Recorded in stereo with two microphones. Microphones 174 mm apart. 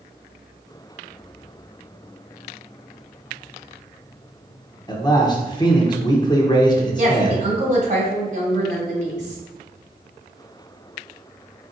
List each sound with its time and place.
4.9 s a man speaking: 25° left (ahead or behind), 0.8 m
7.0 s a woman speaking: 45° right (ahead or behind), 1.9 m